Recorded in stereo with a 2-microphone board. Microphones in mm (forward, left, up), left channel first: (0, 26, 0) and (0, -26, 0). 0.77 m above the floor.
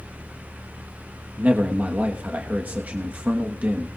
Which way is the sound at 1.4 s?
35° right (ahead or behind).